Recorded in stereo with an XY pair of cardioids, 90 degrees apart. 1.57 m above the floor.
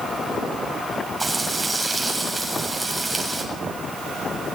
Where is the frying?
10° right, 7.5 m.